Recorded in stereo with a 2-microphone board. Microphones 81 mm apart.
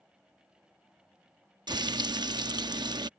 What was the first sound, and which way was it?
Frying, 60° right (ahead or behind).